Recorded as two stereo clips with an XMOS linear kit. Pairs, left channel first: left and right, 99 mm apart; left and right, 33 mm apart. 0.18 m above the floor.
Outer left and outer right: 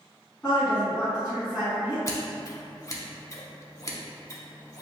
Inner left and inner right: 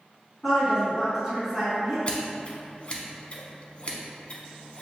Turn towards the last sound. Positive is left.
turn(degrees=35)  # may be behind; listen again after turning